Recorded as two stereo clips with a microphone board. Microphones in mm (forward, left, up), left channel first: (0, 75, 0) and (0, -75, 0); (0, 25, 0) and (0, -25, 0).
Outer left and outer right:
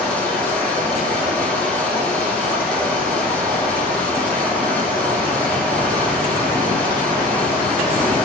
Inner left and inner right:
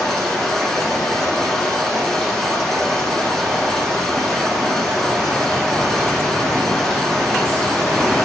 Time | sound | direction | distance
0.0 | running water | 10° left (ahead or behind) | 9 m